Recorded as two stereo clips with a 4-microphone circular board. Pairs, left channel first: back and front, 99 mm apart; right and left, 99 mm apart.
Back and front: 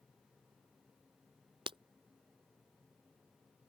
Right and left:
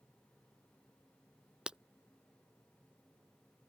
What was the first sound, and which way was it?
Breaking glass, 10° left.